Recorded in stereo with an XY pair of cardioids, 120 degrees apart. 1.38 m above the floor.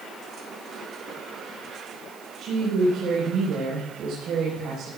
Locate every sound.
2.4 s a woman speaking: 60° right, 5 m